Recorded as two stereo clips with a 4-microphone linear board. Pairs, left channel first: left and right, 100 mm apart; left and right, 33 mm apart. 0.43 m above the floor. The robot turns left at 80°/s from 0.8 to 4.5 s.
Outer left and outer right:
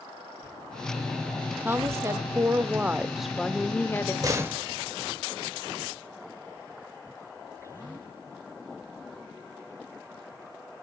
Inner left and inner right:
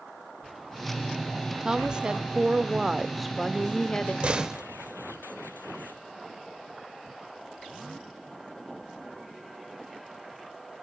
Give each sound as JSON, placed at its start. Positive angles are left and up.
{"t": 1.6, "sound": "a woman speaking", "side_deg": -20, "distance_m": 1.0}
{"t": 4.2, "sound": "a door slam", "side_deg": -35, "distance_m": 1.1}